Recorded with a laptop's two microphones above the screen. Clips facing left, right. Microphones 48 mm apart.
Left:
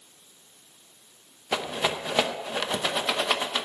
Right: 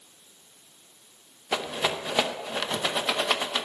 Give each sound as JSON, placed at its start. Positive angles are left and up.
{"t": 1.5, "sound": "a rattle", "side_deg": 5, "distance_m": 0.6}